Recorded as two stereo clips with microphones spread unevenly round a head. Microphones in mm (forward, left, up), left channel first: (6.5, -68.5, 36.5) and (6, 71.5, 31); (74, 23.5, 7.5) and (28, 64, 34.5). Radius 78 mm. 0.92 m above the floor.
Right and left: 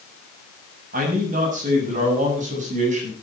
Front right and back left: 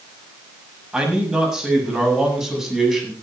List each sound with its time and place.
0.9 s a man speaking: 60° left, 7 m; by 3.1 s 50° left, 8.5 m